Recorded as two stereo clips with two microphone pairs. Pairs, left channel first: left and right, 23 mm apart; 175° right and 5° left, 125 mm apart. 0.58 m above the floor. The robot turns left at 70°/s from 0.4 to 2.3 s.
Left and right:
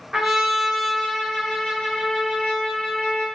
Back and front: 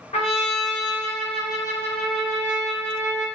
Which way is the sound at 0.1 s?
150° right.